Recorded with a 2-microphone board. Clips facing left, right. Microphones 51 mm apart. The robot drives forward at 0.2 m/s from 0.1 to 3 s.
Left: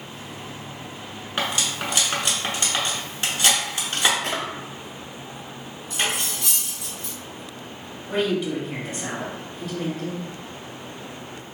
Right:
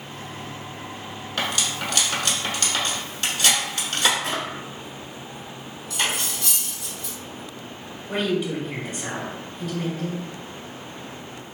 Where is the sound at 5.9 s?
25° left (ahead or behind), 1.8 m.